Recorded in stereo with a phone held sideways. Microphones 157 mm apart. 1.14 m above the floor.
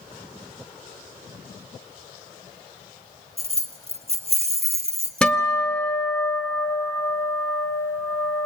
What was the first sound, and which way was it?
Keys jangling, 40° right (ahead or behind).